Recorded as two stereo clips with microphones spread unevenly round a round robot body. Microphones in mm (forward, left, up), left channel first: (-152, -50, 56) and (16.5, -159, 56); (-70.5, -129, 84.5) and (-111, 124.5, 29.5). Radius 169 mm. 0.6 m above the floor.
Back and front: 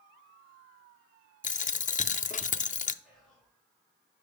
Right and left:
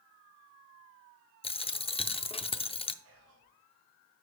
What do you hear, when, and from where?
1.4 s a dropped coin: 155° right, 0.5 m
3.0 s whispering: 60° left, 2.5 m